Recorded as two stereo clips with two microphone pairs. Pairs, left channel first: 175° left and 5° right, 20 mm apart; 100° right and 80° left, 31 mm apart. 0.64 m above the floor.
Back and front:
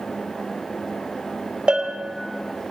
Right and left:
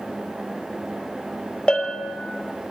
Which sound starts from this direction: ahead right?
A bell, at 1.7 s.